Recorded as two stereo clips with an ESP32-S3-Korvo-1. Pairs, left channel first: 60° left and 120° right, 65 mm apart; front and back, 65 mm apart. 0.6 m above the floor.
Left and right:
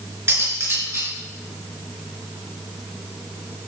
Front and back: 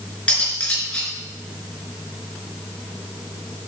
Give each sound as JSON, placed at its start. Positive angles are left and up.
{"t": 0.3, "sound": "cutlery clinking", "azimuth_deg": -75, "distance_m": 4.0}